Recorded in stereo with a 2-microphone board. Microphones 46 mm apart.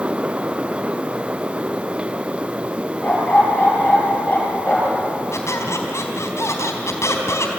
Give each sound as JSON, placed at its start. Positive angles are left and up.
{"t": 3.0, "sound": "a dog barking", "side_deg": 25, "distance_m": 7.5}
{"t": 5.3, "sound": "a squeak", "side_deg": 80, "distance_m": 4.0}